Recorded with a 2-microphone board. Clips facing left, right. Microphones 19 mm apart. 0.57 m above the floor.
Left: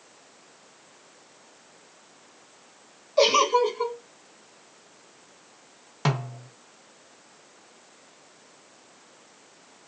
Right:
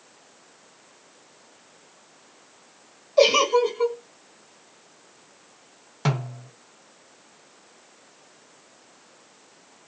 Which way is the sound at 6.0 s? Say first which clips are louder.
Even; 10° left (ahead or behind).